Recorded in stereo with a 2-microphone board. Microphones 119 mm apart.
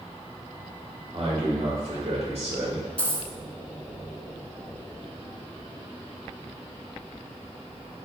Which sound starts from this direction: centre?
A dropped coin, at 3.0 s.